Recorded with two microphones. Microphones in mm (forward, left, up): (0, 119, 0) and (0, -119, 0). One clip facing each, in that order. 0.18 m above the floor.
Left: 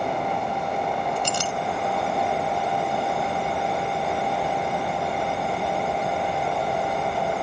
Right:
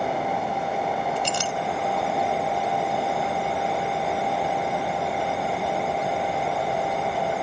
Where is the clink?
50° left (ahead or behind), 1.0 m.